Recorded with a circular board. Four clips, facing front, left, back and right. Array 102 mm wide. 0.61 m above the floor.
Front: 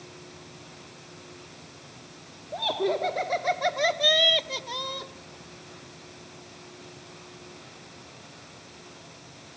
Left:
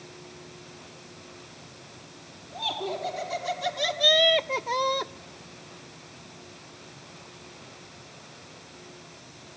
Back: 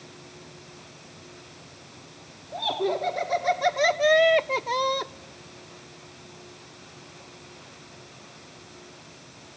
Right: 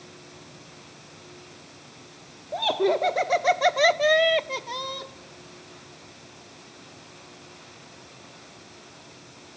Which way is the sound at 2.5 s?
80° right.